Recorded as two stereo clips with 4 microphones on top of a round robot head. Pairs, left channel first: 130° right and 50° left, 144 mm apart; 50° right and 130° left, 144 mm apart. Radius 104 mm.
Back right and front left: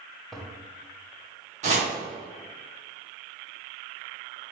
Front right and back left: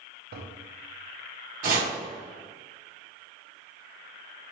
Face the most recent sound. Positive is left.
turn(degrees=95)